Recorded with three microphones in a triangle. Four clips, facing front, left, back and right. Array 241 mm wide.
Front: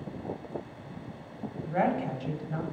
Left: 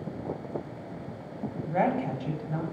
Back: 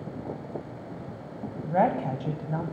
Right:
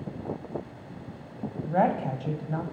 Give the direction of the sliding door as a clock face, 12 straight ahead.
No sliding door in this recording.